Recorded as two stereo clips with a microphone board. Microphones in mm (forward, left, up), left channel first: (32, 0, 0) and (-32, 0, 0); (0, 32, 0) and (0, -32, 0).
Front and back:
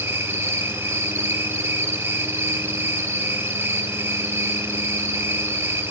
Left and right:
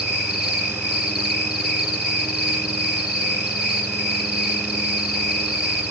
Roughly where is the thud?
I don't hear a thud.